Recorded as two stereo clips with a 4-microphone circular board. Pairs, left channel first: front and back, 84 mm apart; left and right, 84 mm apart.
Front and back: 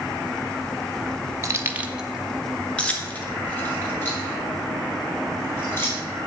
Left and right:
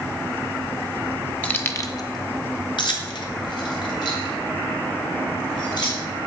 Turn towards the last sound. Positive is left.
turn(degrees=60)